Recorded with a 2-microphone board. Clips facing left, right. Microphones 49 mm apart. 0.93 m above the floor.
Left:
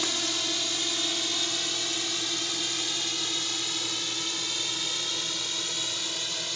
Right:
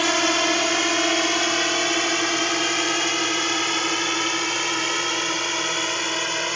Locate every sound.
0.0 s a drone: 60° right (ahead or behind); by 6.6 s 55° right (ahead or behind)